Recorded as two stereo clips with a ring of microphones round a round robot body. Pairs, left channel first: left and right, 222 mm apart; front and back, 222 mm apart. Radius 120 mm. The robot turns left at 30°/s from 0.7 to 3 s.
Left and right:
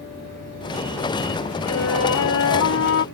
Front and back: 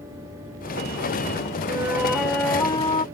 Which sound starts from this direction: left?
A flute, at 1.7 s.